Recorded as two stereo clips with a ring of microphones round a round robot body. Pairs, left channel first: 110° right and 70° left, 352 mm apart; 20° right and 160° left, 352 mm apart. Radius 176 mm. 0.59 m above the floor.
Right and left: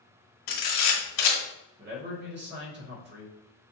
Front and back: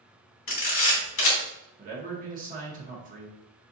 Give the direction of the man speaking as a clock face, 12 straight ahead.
8 o'clock.